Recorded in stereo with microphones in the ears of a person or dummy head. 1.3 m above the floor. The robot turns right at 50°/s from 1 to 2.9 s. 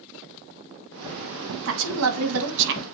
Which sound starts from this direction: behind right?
A woman speaking, at 1.6 s.